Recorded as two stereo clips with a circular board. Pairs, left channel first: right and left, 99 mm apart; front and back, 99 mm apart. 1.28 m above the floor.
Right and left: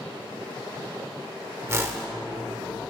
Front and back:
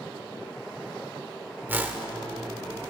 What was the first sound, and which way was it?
A whoosh, 125° left.